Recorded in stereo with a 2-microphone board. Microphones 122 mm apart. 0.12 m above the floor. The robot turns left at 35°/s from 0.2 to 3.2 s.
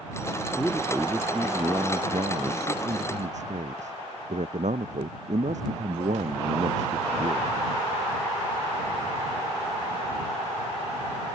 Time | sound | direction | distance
0.6 | a man speaking | 5° left | ?